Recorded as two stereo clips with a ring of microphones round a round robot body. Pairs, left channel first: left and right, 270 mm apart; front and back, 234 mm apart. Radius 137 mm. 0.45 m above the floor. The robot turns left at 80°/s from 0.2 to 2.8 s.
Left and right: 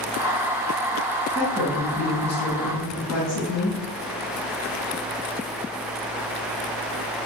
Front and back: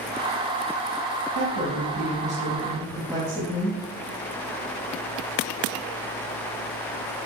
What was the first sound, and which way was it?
A woman speaking, 140° right.